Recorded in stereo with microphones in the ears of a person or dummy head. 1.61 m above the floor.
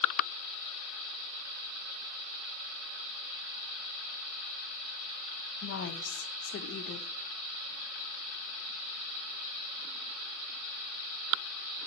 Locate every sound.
5.6 s a woman speaking: 65° left (ahead or behind), 0.7 m